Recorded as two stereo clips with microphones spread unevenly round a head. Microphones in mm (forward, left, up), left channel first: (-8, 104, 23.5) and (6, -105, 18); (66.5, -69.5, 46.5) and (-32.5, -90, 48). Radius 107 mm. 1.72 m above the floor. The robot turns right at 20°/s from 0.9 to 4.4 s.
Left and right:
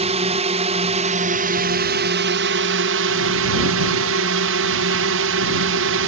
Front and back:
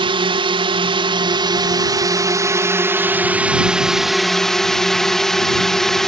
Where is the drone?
145° right; by 6.1 s 75° right.